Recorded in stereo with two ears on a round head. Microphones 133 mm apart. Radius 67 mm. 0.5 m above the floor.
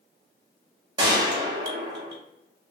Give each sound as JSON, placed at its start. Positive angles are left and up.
{"t": 1.0, "sound": "a gunshot", "side_deg": -25, "distance_m": 0.8}